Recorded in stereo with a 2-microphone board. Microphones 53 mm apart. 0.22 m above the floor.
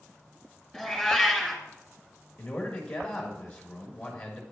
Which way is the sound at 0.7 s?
Centre (ahead or behind).